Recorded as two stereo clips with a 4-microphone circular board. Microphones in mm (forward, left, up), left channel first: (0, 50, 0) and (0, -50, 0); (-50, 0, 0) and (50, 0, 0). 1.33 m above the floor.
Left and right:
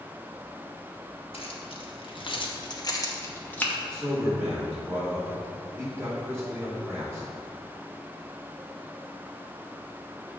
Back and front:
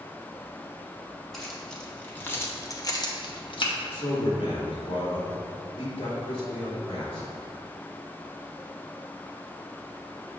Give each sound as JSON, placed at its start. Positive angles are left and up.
{"t": 1.3, "sound": "keys jangling", "azimuth_deg": 90, "distance_m": 1.2}
{"t": 3.9, "sound": "a man speaking", "azimuth_deg": -155, "distance_m": 2.5}